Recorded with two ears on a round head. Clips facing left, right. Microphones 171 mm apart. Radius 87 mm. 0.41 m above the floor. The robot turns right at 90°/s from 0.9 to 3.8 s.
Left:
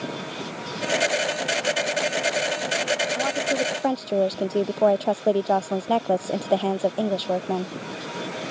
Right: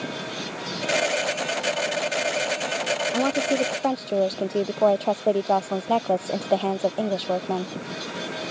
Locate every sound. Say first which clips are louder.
3.1 s a woman speaking: right 2 dB; 55° right; by 7.8 s 5° left